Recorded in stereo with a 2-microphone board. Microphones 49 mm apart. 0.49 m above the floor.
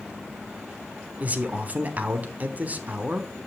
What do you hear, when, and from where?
1.2 s a man speaking: 30° right (ahead or behind), 1.1 m